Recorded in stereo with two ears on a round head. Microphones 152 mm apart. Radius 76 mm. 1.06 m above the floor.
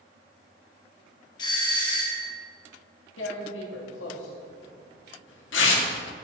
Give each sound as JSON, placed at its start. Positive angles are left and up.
{"t": 1.4, "sound": "a doorbell", "side_deg": 25, "distance_m": 1.6}
{"t": 3.2, "sound": "tearing paper", "side_deg": 80, "distance_m": 1.9}